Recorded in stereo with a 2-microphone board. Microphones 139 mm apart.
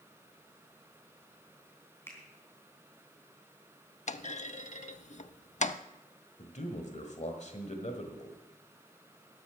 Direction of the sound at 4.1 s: 60° left (ahead or behind).